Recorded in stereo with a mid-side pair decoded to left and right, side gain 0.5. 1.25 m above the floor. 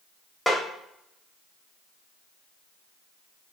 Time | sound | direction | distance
0.5 | a snare drum | straight ahead | 1.6 m